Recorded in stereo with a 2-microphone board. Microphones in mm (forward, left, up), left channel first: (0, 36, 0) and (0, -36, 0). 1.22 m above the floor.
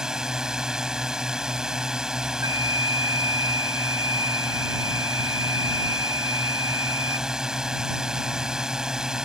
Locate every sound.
0.0 s a drone: 10° right (ahead or behind)
2.4 s a flute: 55° right (ahead or behind)